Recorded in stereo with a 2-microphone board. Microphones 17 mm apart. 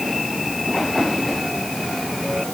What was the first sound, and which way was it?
Only background noise.